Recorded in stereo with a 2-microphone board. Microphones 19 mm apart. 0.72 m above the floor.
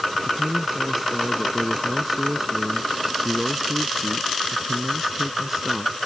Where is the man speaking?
20° right (ahead or behind).